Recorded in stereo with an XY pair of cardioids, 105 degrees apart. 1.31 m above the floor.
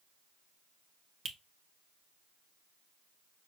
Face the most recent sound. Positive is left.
turn(degrees=-50)